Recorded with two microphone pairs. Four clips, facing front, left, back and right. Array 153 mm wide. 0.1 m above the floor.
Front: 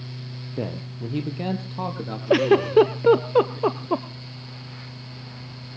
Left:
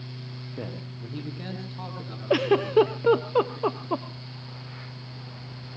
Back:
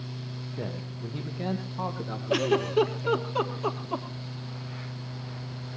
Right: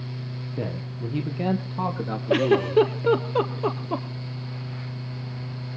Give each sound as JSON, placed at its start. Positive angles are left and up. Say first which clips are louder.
{"t": 0.6, "sound": "a man speaking", "louder": "right 6 dB, front 7 dB", "azimuth_deg": -10, "distance_m": 2.5}
{"t": 2.3, "sound": "a giggle", "louder": "right 1 dB, front 8 dB", "azimuth_deg": 5, "distance_m": 1.0}